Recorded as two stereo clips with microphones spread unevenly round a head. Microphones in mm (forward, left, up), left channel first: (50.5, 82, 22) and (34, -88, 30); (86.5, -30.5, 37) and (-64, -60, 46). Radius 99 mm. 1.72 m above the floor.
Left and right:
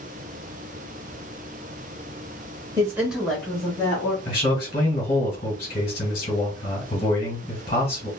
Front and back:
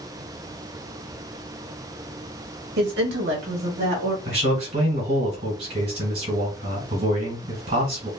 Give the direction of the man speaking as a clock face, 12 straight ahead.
7 o'clock.